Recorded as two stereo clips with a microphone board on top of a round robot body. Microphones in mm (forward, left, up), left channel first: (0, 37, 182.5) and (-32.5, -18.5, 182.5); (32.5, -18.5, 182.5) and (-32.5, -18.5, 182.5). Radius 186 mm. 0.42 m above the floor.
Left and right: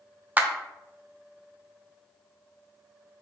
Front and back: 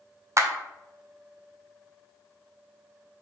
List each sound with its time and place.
0.4 s a clap: 175° right, 0.7 m